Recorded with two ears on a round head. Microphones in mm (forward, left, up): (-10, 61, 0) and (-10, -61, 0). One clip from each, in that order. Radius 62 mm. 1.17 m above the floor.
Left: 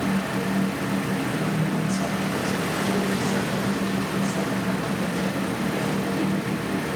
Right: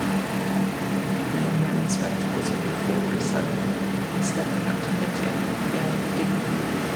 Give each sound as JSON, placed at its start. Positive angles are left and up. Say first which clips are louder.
{"t": 1.3, "sound": "a woman speaking", "louder": "even", "side_deg": -85, "distance_m": 2.0}